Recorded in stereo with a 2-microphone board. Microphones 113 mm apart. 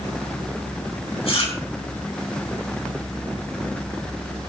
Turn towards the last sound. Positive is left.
turn(degrees=60)  # may be behind; listen again after turning